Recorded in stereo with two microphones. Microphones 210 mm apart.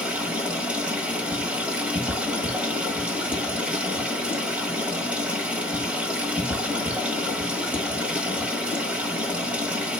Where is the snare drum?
I don't hear a snare drum.